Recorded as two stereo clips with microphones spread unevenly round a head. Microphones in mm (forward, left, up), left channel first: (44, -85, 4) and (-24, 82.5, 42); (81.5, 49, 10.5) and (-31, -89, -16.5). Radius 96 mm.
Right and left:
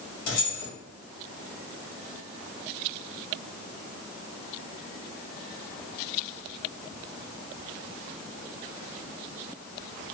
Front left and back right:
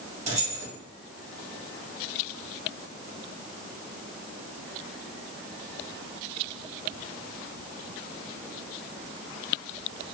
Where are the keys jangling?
80° right, 1.9 m.